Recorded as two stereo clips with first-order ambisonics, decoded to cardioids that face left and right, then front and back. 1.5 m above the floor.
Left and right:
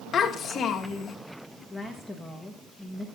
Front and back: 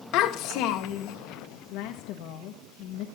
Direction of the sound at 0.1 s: 30° left.